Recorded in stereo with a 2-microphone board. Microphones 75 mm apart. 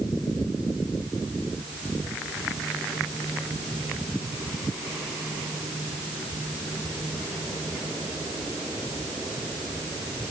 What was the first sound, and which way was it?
Only background noise.